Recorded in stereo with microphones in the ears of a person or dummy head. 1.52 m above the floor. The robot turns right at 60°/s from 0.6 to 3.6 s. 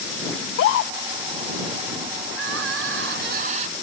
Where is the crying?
120° right; by 3.7 s 40° right.